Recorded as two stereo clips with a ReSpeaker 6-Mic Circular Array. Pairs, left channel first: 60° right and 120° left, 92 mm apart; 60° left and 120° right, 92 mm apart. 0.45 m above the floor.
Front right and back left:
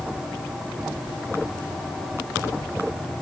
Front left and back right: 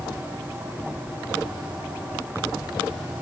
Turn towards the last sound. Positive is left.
No sound to turn to.